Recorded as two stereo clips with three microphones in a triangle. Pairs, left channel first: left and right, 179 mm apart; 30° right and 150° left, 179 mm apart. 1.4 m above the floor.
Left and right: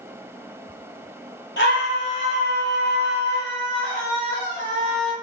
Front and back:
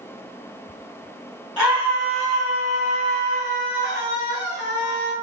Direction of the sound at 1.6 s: 65° left.